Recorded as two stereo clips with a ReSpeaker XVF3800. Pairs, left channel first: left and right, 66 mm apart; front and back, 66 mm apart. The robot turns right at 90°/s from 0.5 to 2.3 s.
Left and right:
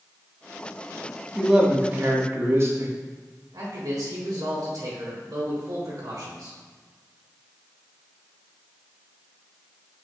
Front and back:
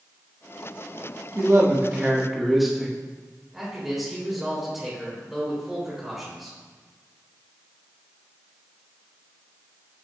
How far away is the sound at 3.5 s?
About 3 m.